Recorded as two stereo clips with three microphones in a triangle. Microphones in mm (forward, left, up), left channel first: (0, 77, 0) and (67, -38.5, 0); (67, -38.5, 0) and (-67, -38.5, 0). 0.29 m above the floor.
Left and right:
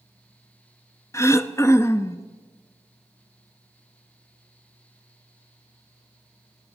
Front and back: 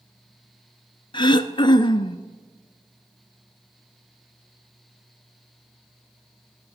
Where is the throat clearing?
50° left, 0.5 m.